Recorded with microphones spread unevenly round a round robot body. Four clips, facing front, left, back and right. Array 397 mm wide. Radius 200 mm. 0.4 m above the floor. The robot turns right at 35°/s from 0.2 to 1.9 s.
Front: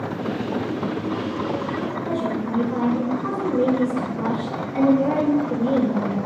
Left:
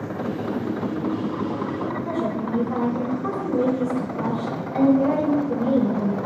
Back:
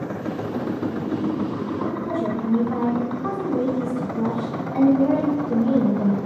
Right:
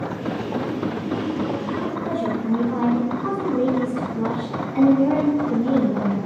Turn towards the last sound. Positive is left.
turn(degrees=105)